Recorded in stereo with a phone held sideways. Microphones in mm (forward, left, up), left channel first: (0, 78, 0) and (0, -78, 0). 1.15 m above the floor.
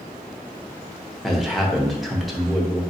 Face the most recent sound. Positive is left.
turn(degrees=0)  # may be behind; listen again after turning